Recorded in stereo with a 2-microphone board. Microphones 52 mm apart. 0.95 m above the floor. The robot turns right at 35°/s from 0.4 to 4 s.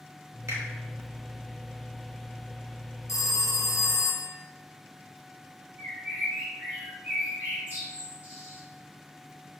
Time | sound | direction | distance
0.5 | a finger snap | 70° right (ahead or behind) | 1.3 m
3.1 | a phone ringing | 100° left | 0.5 m
5.8 | a bird | 35° right (ahead or behind) | 1.8 m